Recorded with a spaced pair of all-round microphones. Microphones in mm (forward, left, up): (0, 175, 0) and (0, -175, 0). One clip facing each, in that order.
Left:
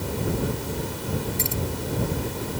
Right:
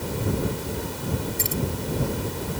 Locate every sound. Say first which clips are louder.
1.4 s keys jangling: even; 25° right (ahead or behind)